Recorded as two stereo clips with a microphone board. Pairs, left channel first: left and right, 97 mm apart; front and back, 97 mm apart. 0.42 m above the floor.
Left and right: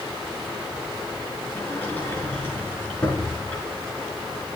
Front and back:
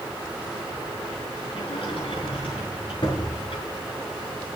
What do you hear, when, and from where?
1.5 s a sliding door: 15° left, 5.5 m